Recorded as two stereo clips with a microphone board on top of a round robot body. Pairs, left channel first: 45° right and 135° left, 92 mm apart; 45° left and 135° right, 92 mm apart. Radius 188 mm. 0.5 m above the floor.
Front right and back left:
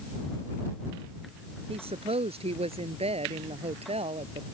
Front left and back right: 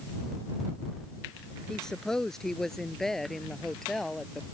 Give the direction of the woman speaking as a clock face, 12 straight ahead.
8 o'clock.